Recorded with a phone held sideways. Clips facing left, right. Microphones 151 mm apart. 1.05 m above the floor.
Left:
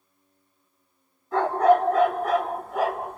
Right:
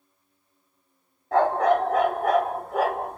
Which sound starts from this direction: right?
A dog barking, at 1.3 s.